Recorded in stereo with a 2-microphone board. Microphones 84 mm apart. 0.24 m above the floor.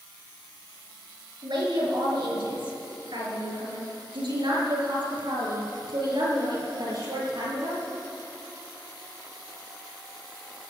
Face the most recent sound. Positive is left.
turn(degrees=-60)  # may be behind; listen again after turning